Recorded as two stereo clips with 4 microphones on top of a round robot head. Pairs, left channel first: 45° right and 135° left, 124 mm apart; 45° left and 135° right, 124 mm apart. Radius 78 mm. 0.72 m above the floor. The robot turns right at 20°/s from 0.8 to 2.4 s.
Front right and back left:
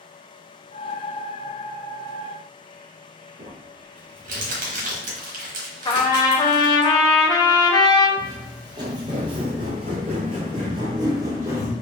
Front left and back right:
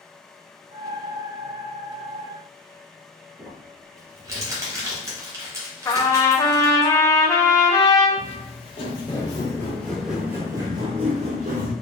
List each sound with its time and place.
3.4 s crumpling: 155° left, 1.3 m
5.8 s a trumpet: 10° right, 1.0 m
8.2 s footsteps: 75° left, 1.3 m; by 11.7 s 155° right, 1.2 m